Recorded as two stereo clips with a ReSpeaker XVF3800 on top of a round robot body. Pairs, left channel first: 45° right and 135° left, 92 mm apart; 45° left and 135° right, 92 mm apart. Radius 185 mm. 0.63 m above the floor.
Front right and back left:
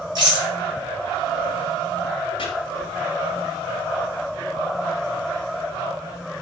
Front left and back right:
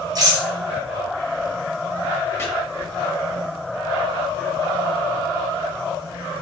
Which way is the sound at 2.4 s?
20° right.